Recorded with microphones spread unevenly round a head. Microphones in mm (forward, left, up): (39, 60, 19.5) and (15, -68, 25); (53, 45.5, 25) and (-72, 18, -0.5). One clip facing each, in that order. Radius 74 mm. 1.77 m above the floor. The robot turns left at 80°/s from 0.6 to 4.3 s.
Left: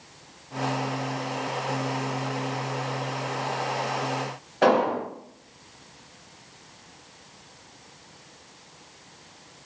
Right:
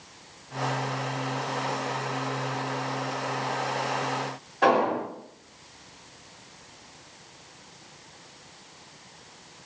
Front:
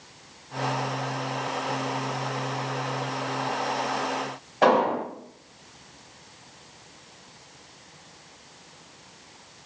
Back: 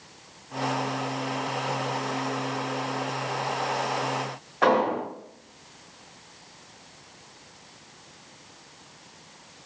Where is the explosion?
60° left, 1.8 m.